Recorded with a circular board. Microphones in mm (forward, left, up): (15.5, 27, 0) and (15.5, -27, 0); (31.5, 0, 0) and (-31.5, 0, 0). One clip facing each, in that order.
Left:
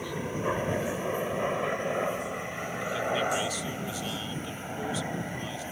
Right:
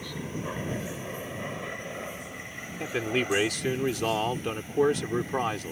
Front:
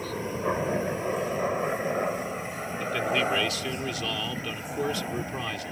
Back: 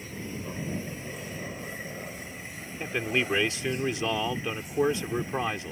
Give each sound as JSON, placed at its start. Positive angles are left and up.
{"t": 0.0, "sound": "a helicopter", "azimuth_deg": 20}
{"t": 2.8, "sound": "a man speaking", "azimuth_deg": -115}